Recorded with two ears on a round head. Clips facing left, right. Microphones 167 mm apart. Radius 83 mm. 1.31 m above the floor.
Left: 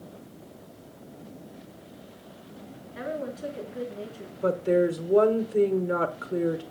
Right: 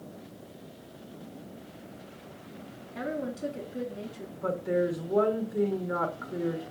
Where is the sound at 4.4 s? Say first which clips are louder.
Left 5 dB; 35° left (ahead or behind), 1.0 m.